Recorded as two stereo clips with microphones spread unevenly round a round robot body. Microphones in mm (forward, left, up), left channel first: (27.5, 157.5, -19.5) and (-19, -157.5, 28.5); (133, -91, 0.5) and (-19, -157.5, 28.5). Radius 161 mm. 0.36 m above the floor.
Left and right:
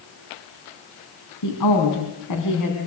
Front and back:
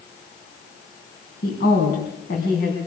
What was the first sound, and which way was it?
A woman speaking, 60° left.